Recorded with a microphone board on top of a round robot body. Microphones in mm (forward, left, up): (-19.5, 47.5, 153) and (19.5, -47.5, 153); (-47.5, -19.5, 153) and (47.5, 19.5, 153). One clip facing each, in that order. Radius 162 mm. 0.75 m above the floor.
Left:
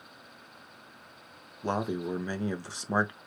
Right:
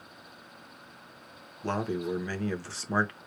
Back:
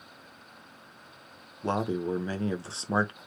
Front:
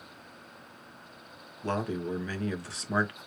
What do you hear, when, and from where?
1.6 s a man speaking: 170° left, 1.1 m